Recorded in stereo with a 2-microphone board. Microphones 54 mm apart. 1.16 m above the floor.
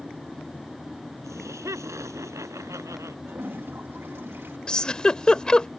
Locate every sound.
1.2 s laughter: 80° right; by 3.1 s 85° right
3.2 s a toilet flushing: 50° right (ahead or behind)
4.7 s a giggle: 15° left (ahead or behind)